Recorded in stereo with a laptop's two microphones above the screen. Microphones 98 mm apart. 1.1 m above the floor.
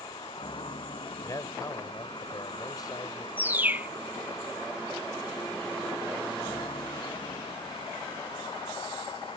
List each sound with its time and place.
0.0 s a vehicle: 60° left (ahead or behind)
1.2 s a man speaking: 40° left (ahead or behind)
3.4 s a bird: 20° right (ahead or behind)